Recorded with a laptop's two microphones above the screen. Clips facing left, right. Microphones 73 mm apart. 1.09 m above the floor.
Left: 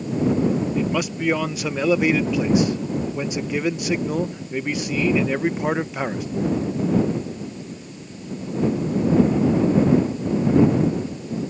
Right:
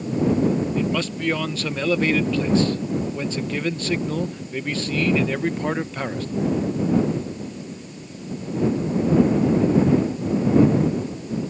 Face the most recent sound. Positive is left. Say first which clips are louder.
# left 1 dB
turn(degrees=15)  # may be behind; listen again after turning